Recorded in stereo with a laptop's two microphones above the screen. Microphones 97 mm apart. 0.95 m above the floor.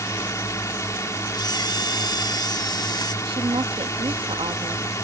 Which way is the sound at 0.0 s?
35° left (ahead or behind).